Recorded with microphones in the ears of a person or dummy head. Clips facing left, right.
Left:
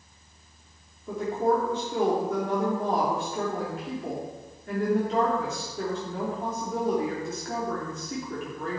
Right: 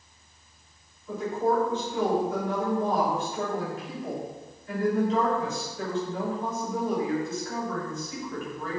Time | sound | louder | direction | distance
1.1 | a woman speaking | left 1 dB | 40° left (ahead or behind) | 3.5 m